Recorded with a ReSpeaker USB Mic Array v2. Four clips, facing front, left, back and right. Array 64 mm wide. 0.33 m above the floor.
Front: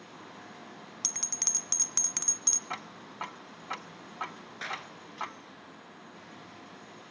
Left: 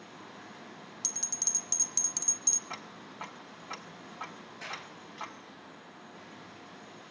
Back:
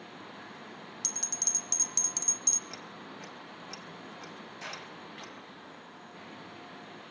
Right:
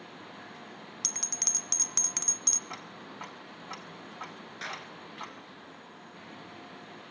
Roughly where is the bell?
Ahead right.